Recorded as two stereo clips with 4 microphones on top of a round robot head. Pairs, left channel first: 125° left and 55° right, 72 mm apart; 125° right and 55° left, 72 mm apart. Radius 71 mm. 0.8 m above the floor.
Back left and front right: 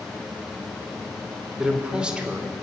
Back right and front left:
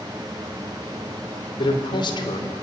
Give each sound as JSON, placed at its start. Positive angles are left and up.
{"t": 1.6, "sound": "a man speaking", "azimuth_deg": -135, "distance_m": 2.5}